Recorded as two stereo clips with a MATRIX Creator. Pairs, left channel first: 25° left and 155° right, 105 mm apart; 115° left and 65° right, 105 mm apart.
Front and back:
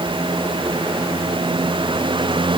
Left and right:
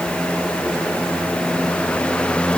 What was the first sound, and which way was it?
Only background noise.